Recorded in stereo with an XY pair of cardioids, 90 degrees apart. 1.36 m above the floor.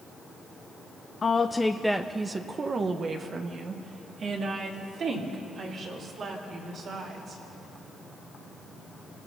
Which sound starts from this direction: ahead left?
A woman speaking, at 1.2 s.